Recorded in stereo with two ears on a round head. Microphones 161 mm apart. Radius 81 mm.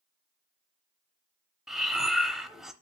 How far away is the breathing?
About 0.6 m.